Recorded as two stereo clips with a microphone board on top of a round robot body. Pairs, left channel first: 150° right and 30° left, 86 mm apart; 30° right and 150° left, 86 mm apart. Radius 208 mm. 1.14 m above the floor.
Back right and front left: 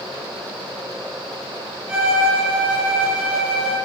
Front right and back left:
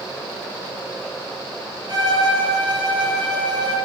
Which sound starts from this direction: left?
A violin, at 1.9 s.